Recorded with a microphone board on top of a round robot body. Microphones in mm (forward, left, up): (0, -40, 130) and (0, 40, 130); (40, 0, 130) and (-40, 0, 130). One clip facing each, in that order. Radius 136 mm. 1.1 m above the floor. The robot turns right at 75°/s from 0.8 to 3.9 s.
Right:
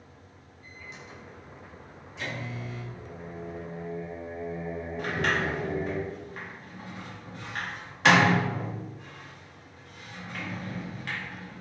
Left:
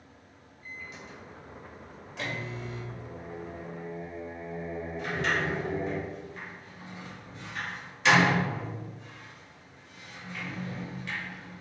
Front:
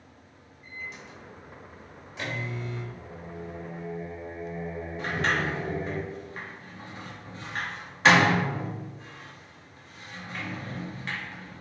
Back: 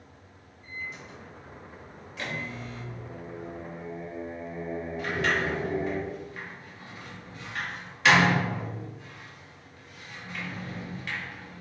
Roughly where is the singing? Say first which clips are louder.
Even, back 1 dB; behind left.